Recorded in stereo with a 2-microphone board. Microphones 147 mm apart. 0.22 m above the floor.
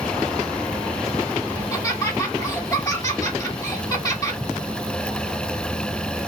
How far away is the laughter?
About 1.9 m.